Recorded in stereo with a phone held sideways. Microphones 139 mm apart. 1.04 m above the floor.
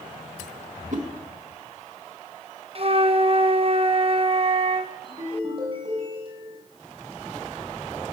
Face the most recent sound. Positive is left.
turn(degrees=-40)  # may be behind; listen again after turning